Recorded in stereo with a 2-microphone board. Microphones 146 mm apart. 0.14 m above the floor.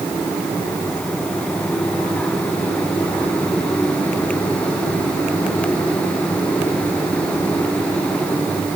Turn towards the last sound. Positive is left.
No sound to turn to.